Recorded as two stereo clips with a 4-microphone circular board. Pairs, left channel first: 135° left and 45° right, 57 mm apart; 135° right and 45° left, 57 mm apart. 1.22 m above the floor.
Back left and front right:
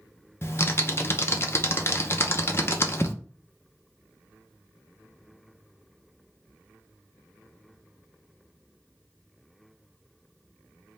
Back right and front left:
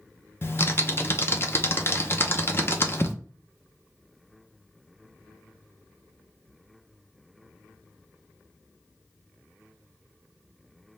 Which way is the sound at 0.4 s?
Straight behind.